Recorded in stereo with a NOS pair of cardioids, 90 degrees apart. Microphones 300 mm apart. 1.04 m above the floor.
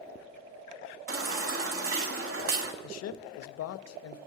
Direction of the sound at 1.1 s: 45° right.